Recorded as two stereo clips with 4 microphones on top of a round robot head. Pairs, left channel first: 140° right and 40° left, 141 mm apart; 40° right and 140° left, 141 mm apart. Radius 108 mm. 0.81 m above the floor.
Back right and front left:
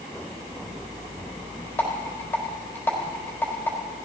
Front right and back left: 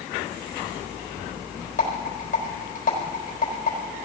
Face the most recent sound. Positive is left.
turn(degrees=-65)